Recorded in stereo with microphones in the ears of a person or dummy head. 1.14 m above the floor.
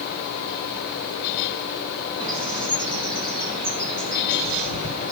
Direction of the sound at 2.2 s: 35° right (ahead or behind).